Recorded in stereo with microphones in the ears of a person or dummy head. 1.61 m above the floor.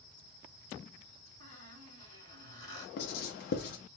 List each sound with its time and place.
1.4 s a squeak: 55° right (ahead or behind), 2.5 m
3.0 s writing: 50° left (ahead or behind), 0.8 m